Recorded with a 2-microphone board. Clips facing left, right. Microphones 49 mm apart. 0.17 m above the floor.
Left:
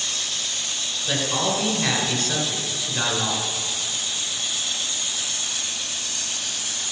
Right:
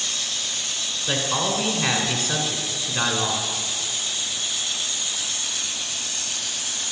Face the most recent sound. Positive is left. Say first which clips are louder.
# even
turn(degrees=-25)  # may be behind; listen again after turning